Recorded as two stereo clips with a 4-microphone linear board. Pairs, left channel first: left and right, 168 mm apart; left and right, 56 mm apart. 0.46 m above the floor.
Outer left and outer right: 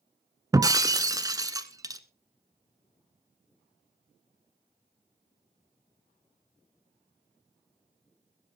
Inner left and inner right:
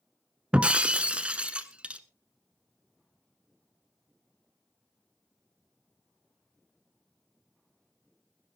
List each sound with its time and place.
0.5 s breaking glass: 20° right (ahead or behind), 0.8 m